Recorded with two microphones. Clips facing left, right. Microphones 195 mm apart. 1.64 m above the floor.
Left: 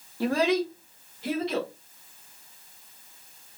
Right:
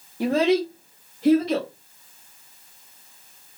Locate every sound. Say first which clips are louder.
0.2 s a child speaking: right 4 dB; 15° right (ahead or behind), 0.7 m; by 1.7 s 45° right (ahead or behind), 1.6 m